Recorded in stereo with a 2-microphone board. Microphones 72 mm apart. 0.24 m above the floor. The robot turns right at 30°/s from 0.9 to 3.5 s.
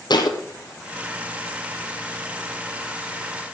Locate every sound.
0.1 s a thud: 80° left, 2.5 m